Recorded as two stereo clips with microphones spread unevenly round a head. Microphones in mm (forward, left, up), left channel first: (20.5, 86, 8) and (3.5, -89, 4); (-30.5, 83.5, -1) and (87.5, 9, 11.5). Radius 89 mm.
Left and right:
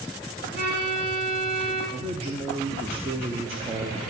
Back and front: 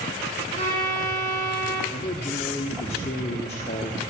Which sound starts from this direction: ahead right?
A violin, at 0.6 s.